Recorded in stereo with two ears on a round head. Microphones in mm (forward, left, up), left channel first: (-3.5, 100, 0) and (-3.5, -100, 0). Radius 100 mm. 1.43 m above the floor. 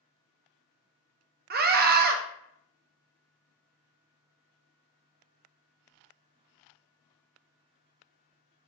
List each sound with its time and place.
1.5 s a scream: 45° right (ahead or behind), 0.6 m